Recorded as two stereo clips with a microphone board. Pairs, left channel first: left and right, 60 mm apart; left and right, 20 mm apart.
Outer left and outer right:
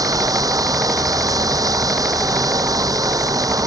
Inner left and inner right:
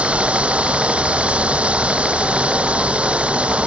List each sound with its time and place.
0.0 s running water: 90° right